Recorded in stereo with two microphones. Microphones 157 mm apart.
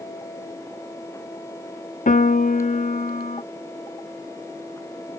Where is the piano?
55° left (ahead or behind).